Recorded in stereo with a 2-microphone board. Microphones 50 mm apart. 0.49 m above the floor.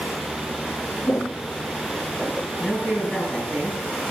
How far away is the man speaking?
About 7 m.